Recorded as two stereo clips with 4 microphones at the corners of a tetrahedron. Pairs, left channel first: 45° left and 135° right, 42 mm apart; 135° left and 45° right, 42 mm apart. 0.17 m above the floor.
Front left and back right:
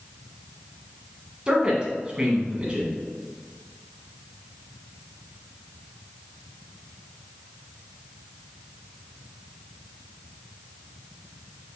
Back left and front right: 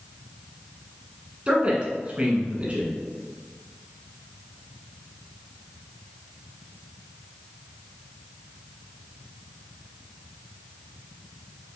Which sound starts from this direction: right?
A man speaking, at 1.5 s.